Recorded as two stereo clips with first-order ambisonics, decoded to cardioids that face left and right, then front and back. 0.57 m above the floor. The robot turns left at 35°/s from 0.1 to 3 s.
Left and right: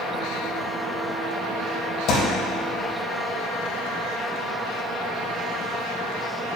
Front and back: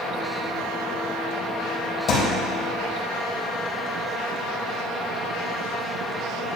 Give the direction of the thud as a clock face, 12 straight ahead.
10 o'clock.